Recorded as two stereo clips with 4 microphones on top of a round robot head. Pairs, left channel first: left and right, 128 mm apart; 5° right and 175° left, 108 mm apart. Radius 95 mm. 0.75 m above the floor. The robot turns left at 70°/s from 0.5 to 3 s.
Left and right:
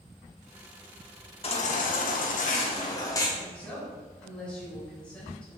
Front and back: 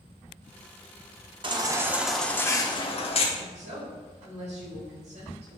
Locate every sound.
1.4 s a baby crying: 130° left, 1.1 m; by 3.3 s 25° left, 1.1 m
3.4 s a woman speaking: 170° left, 3.5 m